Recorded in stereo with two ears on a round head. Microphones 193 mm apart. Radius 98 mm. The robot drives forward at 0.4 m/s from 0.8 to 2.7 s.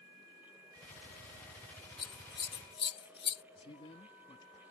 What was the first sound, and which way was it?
Scissors, 20° left (ahead or behind).